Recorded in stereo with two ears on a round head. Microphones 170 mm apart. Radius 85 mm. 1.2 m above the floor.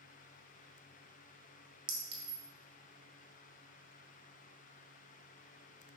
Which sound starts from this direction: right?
A clink, at 1.9 s.